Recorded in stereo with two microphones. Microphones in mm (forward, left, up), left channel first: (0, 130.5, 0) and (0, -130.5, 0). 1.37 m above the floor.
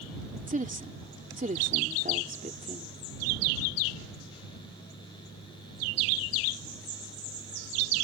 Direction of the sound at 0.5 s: 30° right (ahead or behind).